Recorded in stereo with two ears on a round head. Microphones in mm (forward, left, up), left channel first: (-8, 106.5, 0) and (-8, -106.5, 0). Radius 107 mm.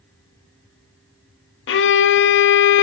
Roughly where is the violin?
Left.